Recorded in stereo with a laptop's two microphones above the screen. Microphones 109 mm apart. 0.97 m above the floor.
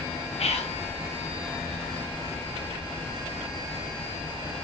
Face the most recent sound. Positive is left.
turn(degrees=70)  # may be behind; listen again after turning